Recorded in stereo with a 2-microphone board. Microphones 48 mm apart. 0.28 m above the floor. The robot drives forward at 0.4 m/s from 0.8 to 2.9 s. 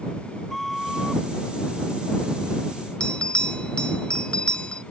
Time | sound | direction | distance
0.5 | a flute | centre (ahead or behind) | ?
3.0 | a bell | 20° left (ahead or behind) | ?